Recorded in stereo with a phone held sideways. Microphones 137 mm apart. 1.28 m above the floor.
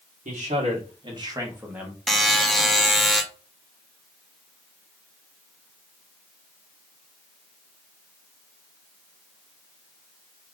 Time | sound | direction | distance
0.2 | a man speaking | 60° right (ahead or behind) | 1.2 m
2.1 | a buzzer | centre (ahead or behind) | 0.6 m